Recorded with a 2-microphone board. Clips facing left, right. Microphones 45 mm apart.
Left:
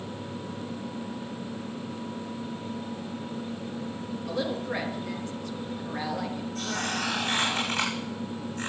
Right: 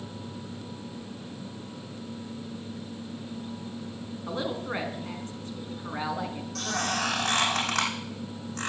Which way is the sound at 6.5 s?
85° right.